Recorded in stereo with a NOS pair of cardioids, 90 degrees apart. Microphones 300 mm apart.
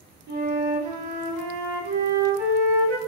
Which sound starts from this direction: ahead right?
A flute, at 0.3 s.